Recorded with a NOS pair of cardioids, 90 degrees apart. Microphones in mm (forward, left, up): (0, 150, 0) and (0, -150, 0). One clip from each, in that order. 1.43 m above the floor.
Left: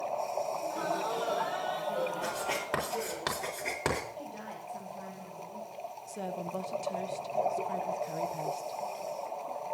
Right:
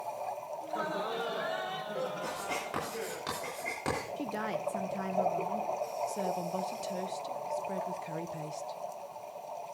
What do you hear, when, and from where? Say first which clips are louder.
0.6 s laughter: left 2 dB; 20° right, 6 m; by 3.2 s 10° right, 7 m
2.2 s writing: left 2 dB; 55° left, 4.5 m
4.2 s a woman speaking: right 7 dB; 65° right, 0.9 m
6.1 s a woman speaking: right 3 dB; 10° right, 0.8 m